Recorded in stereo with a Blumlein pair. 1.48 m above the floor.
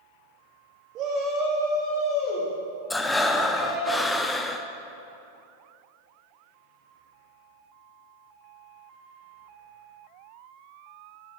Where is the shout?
35° right, 1.1 m; by 3.9 s 65° left, 4.5 m.